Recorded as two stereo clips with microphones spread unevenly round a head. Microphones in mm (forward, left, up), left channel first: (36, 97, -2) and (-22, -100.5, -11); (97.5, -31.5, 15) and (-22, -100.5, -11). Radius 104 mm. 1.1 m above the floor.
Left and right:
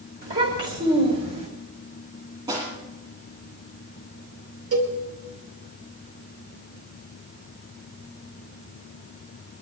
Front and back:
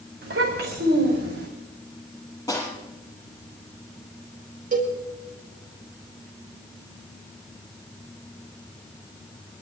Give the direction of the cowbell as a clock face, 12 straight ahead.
4 o'clock.